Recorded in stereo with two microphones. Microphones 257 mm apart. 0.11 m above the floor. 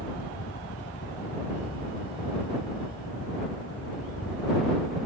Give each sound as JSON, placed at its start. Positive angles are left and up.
{"t": 0.0, "sound": "a helicopter", "side_deg": 60}